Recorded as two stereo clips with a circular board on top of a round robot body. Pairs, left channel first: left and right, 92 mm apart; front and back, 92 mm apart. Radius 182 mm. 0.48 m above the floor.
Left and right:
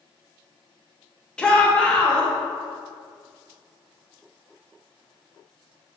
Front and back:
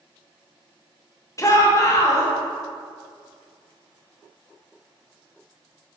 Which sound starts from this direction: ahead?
A shout, at 1.4 s.